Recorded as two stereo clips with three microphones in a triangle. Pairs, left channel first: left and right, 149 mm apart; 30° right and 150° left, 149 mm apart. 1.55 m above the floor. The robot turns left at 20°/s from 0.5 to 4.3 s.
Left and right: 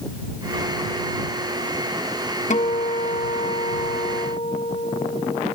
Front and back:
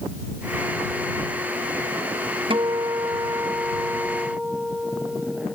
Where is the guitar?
105° left; by 5.5 s 70° left.